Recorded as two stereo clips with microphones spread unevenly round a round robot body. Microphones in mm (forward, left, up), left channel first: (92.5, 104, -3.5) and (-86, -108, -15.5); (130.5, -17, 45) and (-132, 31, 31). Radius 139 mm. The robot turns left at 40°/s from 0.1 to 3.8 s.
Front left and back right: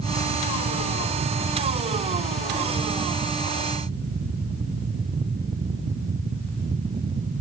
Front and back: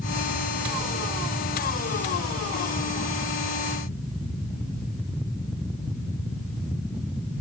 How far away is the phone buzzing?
I don't hear a phone buzzing.